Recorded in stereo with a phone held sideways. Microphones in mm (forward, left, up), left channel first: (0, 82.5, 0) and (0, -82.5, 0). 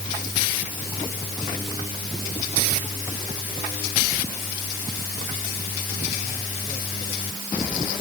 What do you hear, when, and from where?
Only background noise.